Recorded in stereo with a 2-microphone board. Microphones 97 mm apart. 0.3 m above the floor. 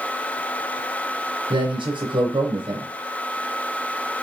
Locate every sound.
1.5 s a man speaking: 60° right (ahead or behind), 4 m